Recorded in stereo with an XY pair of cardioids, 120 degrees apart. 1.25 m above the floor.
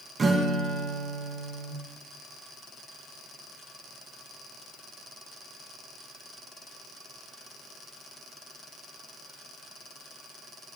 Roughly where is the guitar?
Ahead right.